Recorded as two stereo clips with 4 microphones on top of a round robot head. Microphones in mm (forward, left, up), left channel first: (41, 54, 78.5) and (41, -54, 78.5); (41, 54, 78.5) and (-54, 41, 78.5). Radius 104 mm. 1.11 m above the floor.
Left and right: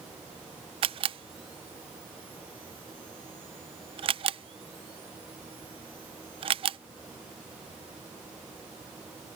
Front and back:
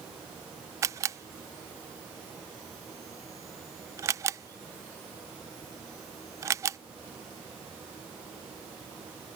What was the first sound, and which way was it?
A camera shutter, 115° right.